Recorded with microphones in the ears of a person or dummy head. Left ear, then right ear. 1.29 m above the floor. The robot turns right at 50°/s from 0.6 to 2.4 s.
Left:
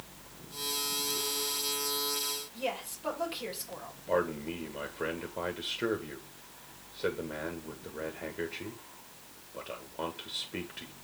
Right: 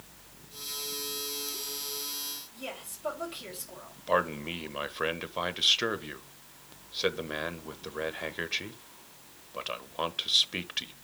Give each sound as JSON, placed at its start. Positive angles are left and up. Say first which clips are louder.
{"t": 2.5, "sound": "a woman speaking", "louder": "left 5 dB", "side_deg": 25, "distance_m": 4.0}
{"t": 4.1, "sound": "a man speaking", "louder": "right 3 dB", "side_deg": -45, "distance_m": 1.1}